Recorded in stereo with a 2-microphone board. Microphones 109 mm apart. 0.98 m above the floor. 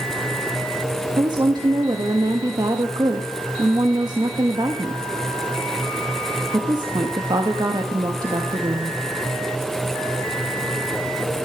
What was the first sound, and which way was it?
A woman speaking, 40° right (ahead or behind).